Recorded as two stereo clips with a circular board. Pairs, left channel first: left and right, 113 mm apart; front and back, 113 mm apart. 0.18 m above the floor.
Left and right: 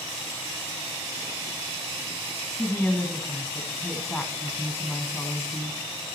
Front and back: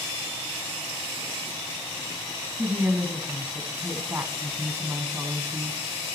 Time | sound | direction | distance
2.6 | a woman speaking | 140° left | 1.1 m